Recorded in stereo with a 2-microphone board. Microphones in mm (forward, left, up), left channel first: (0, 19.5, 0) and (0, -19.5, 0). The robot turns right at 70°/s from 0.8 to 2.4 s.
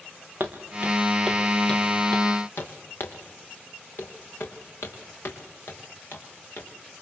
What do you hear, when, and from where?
0.4 s footsteps: 50° right (ahead or behind), 3.5 m; by 6.7 s 70° left (ahead or behind), 7 m